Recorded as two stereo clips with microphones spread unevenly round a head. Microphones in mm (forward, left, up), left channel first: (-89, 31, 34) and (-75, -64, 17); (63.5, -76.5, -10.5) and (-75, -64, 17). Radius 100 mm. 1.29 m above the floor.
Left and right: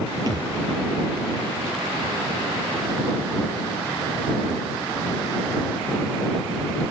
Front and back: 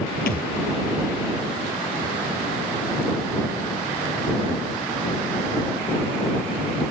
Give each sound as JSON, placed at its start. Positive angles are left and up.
{"t": 0.3, "sound": "a thud", "azimuth_deg": -10}